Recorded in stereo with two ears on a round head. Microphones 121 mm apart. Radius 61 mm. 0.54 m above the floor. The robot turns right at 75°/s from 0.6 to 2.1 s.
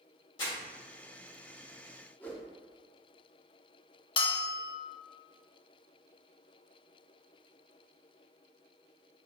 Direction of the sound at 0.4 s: 35° left (ahead or behind).